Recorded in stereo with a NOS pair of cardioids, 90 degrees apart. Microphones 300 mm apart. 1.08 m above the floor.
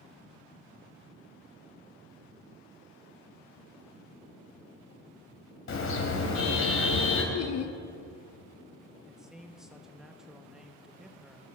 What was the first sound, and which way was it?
A car horn, 45° left.